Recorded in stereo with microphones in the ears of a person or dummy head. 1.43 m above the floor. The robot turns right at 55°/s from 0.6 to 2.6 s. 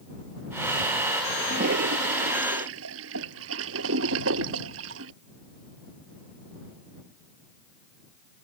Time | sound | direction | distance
1.4 | a toilet flushing | 40° right (ahead or behind) | ?